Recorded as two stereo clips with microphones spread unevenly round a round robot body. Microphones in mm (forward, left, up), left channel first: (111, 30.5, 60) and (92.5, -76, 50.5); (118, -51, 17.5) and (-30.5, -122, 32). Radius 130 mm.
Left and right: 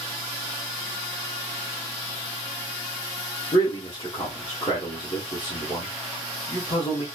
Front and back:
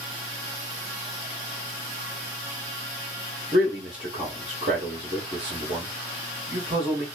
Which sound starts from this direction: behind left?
A man speaking, at 3.5 s.